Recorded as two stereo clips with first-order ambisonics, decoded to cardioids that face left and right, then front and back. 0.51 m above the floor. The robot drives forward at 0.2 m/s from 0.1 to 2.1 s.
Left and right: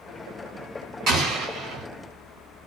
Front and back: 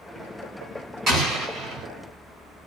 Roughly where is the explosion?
Behind right.